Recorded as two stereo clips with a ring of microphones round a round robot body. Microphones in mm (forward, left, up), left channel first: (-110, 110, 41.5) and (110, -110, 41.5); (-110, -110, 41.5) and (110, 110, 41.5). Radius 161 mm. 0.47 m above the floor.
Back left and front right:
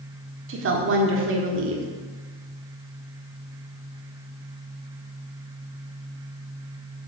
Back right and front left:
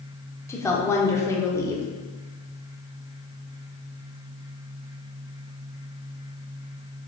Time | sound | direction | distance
0.5 | a woman speaking | 60° right | 1.3 m